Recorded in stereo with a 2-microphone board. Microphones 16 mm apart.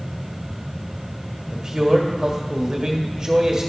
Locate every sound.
1.5 s a man speaking: 35° right (ahead or behind), 1.3 m